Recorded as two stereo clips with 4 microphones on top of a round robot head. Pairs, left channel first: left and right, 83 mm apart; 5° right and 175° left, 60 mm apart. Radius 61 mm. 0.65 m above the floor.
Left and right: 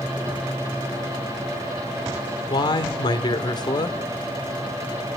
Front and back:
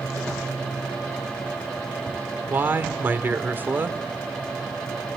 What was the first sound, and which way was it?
A man speaking, 120° left.